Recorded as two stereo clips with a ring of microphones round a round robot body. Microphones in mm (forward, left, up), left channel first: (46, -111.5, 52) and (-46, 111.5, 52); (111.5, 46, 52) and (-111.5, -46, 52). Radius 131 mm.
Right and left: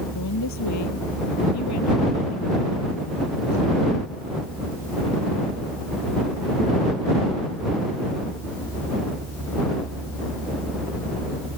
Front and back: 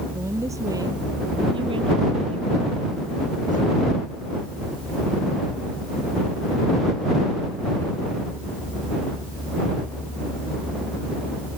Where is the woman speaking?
80° right; by 3.6 s 100° right.